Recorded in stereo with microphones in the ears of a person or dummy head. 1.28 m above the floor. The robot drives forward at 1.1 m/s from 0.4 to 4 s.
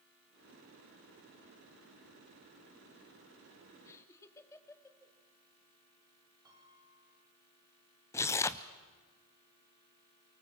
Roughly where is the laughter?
Centre.